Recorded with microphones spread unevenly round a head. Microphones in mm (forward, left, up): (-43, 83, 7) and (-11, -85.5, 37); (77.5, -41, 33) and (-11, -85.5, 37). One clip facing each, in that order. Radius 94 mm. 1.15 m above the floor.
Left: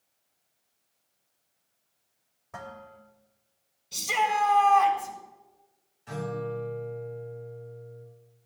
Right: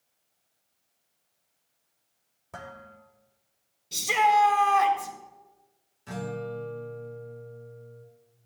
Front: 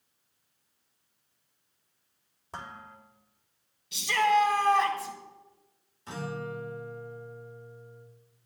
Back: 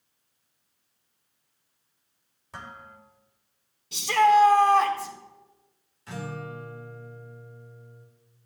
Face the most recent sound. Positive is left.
turn(degrees=-35)